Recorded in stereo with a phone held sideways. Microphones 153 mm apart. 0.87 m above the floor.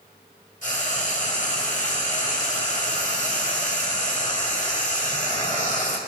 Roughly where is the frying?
Left.